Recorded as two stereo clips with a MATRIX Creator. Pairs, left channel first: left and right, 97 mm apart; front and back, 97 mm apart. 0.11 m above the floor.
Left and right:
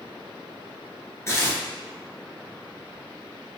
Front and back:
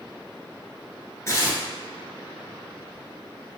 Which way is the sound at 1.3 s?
45° left.